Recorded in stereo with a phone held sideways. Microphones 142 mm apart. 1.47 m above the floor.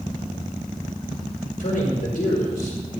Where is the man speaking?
80° left, 6 m; by 3.0 s 90° left, 4.5 m.